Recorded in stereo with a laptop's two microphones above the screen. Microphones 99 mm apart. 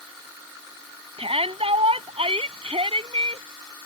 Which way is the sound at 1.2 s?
85° right.